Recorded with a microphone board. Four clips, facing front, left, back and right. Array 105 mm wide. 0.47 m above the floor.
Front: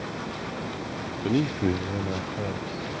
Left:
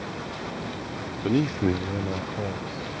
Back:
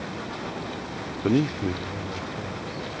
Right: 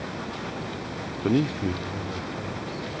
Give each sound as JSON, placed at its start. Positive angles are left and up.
{"t": 1.2, "sound": "a man speaking", "azimuth_deg": -155}